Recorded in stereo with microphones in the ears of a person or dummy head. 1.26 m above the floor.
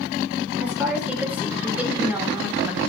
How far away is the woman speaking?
About 4.5 m.